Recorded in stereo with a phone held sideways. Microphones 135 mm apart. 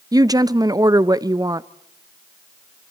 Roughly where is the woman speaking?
Right.